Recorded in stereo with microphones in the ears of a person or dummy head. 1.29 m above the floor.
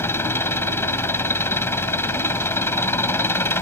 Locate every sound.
0.0 s an engine running: 20° left (ahead or behind)